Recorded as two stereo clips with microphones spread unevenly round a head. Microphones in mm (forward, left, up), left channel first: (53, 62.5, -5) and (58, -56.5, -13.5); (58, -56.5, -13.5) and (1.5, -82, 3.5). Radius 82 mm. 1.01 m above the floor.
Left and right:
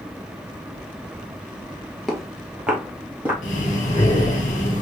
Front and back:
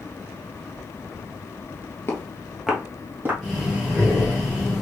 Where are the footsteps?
20° left, 1.0 m; by 3.3 s 165° right, 1.4 m.